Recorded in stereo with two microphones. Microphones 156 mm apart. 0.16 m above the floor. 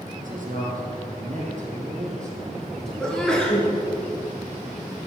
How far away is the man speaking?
About 3 m.